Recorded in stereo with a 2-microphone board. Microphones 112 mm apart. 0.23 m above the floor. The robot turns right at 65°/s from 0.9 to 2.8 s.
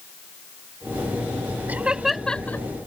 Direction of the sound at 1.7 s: 15° right (ahead or behind).